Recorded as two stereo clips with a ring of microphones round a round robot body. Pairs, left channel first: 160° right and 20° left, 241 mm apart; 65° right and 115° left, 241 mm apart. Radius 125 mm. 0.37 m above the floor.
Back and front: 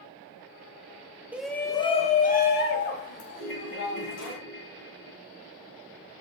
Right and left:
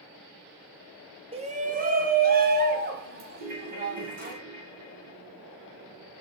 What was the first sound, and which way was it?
A shout, 95° left.